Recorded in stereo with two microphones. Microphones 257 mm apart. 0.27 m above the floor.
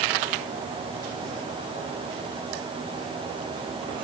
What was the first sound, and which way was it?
Only background noise.